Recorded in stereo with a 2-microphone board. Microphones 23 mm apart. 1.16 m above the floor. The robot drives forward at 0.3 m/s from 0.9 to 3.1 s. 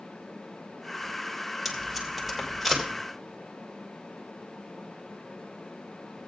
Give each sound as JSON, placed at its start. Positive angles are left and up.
{"t": 1.6, "sound": "tape being pulled", "side_deg": -10, "distance_m": 2.5}